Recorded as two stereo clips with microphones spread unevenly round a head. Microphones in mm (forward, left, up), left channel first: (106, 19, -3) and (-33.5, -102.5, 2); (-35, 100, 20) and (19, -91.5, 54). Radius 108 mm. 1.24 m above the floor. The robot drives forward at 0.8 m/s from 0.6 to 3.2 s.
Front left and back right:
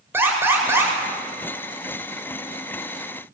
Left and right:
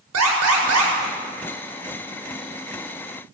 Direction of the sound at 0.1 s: 60° right.